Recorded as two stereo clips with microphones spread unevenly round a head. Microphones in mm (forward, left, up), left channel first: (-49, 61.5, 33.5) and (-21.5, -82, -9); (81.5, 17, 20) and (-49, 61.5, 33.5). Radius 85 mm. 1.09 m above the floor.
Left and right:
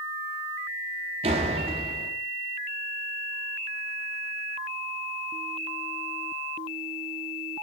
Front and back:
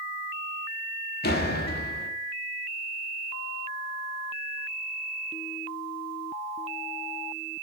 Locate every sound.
1.2 s a door slam: 20° right, 1.6 m